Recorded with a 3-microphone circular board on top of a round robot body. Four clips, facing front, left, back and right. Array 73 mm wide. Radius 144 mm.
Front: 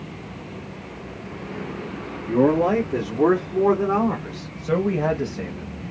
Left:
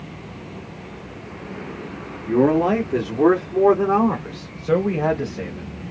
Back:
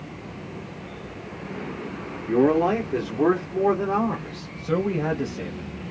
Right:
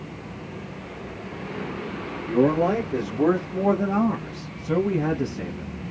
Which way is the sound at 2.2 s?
115° left.